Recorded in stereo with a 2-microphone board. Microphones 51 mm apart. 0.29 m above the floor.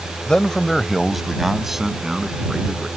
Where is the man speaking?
15° left (ahead or behind); by 2.9 s 10° right (ahead or behind).